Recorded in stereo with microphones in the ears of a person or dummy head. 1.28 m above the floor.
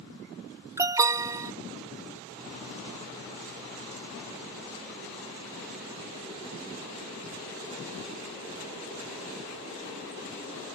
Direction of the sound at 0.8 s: 15° right (ahead or behind).